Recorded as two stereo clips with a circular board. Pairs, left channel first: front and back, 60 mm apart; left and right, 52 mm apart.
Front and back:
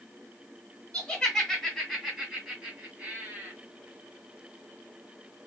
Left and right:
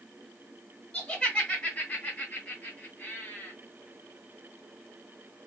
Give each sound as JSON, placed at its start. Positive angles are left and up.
{"t": 0.9, "sound": "laughter", "azimuth_deg": 40, "distance_m": 1.6}